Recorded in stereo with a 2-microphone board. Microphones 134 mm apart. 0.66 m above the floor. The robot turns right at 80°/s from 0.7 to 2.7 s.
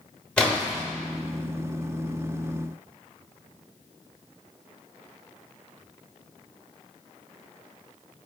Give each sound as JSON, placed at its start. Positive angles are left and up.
{"t": 0.4, "sound": "a splash", "side_deg": 5, "distance_m": 0.9}